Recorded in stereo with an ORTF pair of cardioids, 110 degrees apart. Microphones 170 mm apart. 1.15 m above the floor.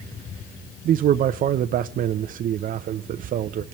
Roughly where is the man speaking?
Ahead right.